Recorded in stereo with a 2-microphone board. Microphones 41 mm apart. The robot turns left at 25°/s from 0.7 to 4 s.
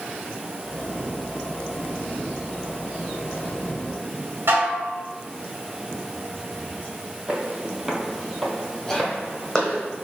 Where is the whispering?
15° left (ahead or behind), 0.9 m.